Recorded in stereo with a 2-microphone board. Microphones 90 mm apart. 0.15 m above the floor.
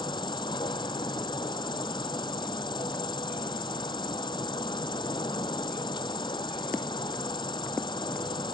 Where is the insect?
60° left (ahead or behind).